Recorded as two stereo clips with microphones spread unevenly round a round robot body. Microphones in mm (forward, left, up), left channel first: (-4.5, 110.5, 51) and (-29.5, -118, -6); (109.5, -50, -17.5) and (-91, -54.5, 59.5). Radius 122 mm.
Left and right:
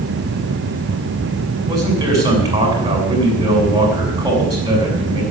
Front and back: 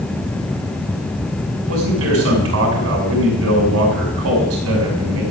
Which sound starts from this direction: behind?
A man speaking, at 1.7 s.